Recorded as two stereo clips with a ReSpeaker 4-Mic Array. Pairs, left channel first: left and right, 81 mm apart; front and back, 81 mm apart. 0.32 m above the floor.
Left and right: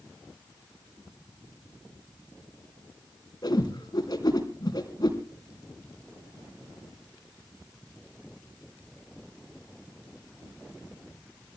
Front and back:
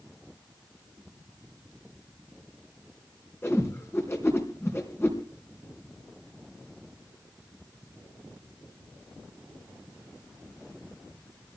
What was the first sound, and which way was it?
A whoosh, 55° left.